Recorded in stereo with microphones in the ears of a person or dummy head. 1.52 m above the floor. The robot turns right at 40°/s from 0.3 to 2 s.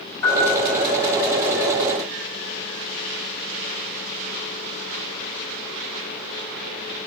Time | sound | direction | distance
0.2 | a piano | 20° left (ahead or behind) | 5.5 m